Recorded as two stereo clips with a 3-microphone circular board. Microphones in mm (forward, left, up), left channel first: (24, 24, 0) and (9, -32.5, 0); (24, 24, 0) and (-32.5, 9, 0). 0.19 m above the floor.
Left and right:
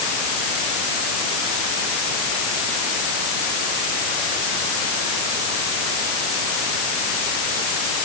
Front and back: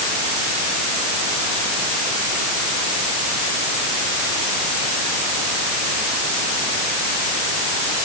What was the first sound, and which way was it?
Only background noise.